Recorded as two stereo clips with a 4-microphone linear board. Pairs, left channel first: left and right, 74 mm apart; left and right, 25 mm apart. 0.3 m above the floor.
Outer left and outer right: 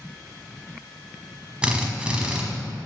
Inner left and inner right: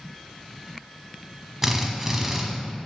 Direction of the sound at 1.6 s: 15° right (ahead or behind).